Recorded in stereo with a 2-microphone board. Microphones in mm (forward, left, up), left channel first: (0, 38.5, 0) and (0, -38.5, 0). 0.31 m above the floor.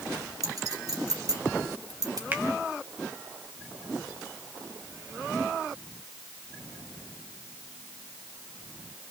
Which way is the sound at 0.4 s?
50° right (ahead or behind).